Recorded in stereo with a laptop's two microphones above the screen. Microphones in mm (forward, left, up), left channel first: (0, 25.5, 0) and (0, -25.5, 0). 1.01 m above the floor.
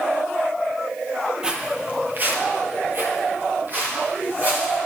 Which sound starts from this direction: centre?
Footsteps, at 1.4 s.